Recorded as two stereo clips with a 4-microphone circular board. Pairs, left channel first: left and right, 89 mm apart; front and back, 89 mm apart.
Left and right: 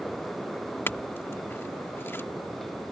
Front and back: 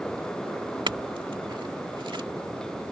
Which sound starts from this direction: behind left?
A clink, at 0.9 s.